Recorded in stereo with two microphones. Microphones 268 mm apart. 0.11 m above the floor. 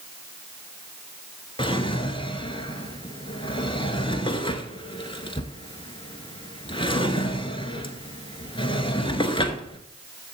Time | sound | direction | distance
1.6 | a drawer | 20° left (ahead or behind) | 1.0 m